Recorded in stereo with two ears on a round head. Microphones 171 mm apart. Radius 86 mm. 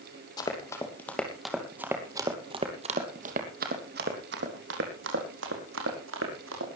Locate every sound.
0.4 s running footsteps: 20° left (ahead or behind), 3 m; by 6.7 s 75° right (ahead or behind), 5.5 m